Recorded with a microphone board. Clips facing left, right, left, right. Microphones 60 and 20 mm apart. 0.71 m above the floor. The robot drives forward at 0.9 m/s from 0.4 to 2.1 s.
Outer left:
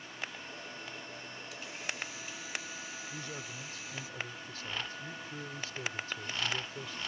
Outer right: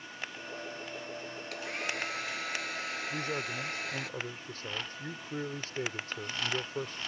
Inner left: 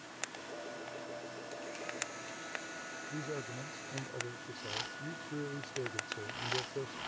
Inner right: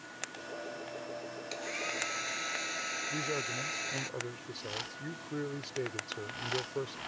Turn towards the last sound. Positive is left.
turn(degrees=-40)  # may be behind; listen again after turning